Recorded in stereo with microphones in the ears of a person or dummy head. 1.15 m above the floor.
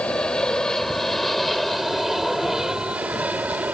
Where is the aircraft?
10° left (ahead or behind); by 3.8 s 5° right (ahead or behind).